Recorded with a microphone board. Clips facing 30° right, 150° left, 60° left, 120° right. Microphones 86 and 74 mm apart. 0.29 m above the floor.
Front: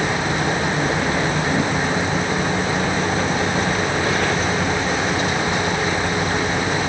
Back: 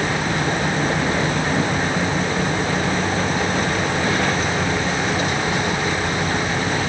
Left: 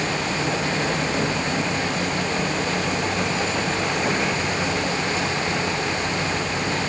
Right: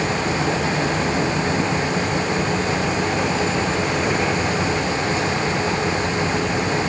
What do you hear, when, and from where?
Only background noise.